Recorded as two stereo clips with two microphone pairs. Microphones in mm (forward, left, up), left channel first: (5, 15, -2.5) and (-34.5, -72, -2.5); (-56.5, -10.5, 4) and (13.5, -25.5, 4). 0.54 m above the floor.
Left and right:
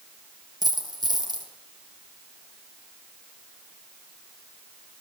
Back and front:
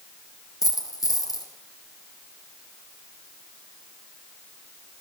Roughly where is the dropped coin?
Behind.